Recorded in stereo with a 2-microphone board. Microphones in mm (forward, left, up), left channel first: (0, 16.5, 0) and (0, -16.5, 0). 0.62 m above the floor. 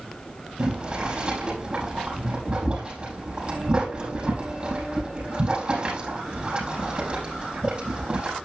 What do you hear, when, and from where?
0.6 s boiling: 35° right (ahead or behind), 5.5 m